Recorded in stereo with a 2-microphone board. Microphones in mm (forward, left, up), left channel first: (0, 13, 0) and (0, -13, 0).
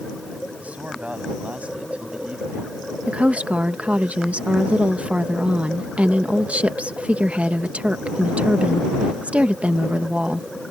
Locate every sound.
0.6 s a man speaking: 60° right (ahead or behind); by 2.8 s 55° right (ahead or behind)
3.1 s a woman speaking: 60° right (ahead or behind)